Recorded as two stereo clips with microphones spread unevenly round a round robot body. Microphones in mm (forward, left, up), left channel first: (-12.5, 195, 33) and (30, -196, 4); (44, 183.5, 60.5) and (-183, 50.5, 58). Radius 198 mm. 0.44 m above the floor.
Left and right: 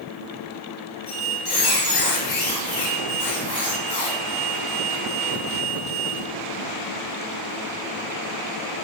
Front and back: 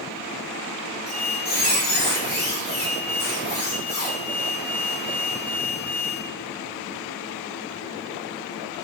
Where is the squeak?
90° left, 1.3 m.